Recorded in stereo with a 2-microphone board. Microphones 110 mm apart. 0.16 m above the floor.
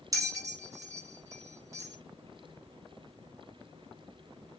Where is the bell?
35° right (ahead or behind), 1.4 m.